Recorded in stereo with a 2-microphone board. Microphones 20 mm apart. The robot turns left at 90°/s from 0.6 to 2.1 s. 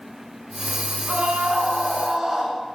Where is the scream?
70° right, 8 m; by 2.6 s 160° right, 8 m.